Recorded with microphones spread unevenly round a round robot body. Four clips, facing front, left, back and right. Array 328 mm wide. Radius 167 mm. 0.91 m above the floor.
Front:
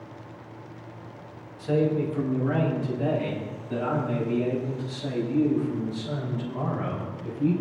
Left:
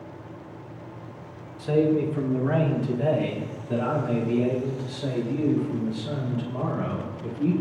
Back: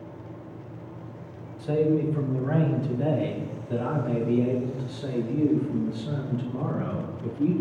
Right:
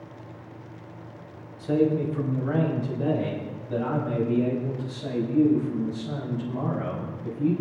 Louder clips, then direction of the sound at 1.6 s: Left 1 dB, back 1 dB; 85° left.